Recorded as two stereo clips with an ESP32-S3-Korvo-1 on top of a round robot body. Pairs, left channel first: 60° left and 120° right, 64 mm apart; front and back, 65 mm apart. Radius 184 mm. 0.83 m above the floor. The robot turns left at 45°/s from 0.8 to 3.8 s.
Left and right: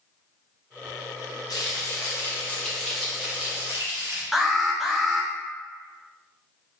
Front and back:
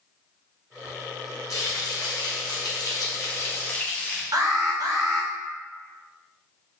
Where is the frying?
35° left, 0.8 m; by 4.2 s 70° right, 0.8 m.